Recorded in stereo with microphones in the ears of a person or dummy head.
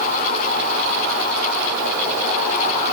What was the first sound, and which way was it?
Only background noise.